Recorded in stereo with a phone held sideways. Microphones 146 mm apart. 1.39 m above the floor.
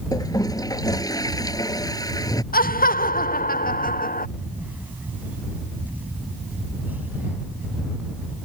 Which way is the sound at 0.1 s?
25° left (ahead or behind).